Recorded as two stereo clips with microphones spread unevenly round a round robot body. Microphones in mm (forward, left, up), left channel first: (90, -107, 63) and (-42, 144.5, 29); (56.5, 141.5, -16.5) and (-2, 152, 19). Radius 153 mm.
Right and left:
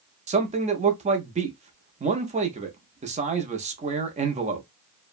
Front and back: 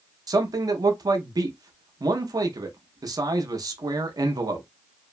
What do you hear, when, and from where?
0.3 s a man speaking: 140° left, 0.6 m